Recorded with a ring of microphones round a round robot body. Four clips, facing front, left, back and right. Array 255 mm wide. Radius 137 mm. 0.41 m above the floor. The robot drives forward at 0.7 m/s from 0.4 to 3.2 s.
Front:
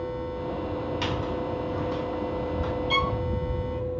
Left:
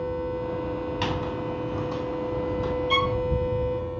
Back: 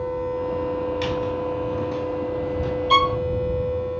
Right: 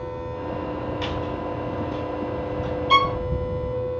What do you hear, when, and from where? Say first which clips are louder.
1.0 s a squeak: right 1 dB, back 5 dB; 100° left, 3 m; by 2.7 s 120° left, 3.5 m
2.9 s a violin: right 8 dB, back 10 dB; 140° right, 0.6 m; by 3.2 s 150° right, 0.7 m